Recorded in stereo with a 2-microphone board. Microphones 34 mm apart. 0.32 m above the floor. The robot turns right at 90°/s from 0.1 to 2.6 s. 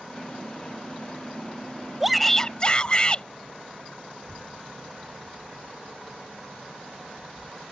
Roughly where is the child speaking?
Centre.